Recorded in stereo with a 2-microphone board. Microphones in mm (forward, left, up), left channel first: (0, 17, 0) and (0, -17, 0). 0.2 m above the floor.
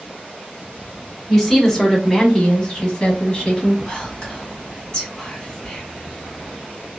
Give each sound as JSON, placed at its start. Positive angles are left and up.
{"t": 1.3, "sound": "a woman speaking", "side_deg": 5, "distance_m": 1.4}
{"t": 3.9, "sound": "whispering", "side_deg": 30, "distance_m": 1.9}